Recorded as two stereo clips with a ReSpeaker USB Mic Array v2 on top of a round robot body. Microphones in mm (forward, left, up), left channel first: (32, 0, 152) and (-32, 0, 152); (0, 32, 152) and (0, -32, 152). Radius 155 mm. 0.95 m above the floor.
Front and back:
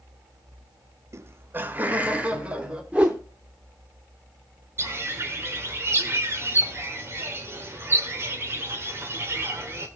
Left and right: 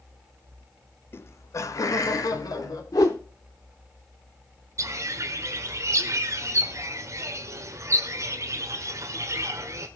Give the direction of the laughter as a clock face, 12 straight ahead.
7 o'clock.